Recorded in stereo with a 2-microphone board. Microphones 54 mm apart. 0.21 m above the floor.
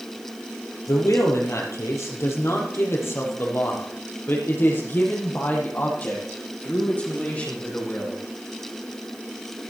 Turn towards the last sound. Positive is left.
turn(degrees=25)  # may be behind; listen again after turning